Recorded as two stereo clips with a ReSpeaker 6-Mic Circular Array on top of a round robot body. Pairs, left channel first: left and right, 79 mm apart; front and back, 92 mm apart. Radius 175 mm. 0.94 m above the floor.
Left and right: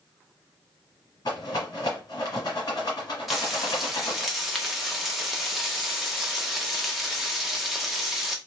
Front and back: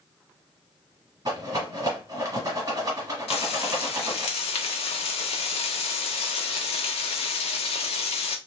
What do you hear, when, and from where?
1.2 s a rattle: 135° left, 1.7 m
3.3 s frying: straight ahead, 0.6 m